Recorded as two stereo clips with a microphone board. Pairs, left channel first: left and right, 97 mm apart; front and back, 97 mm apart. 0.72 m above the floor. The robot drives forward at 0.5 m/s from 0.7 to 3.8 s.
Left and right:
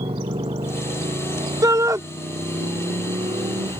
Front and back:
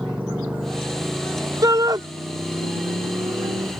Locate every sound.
0.0 s a motorcycle: 95° right; by 3.8 s 120° right
1.6 s a shout: 135° right; by 2.0 s 140° right